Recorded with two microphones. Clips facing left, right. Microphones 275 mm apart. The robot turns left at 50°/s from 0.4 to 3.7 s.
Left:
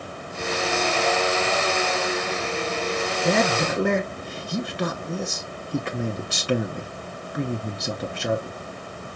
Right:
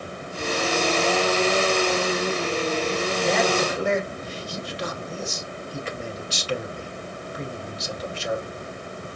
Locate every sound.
3.2 s a man speaking: 40° left (ahead or behind), 1.1 m; by 8.6 s 60° left (ahead or behind), 1.1 m